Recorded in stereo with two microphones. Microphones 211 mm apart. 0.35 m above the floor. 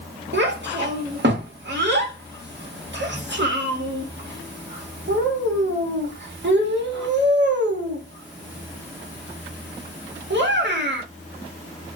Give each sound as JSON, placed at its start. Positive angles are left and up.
{"t": 0.3, "sound": "a child speaking", "side_deg": -60, "distance_m": 1.1}